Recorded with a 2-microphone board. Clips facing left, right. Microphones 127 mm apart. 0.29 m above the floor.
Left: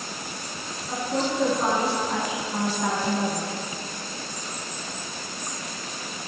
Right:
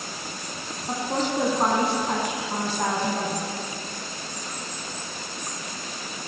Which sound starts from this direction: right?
A woman speaking, at 0.9 s.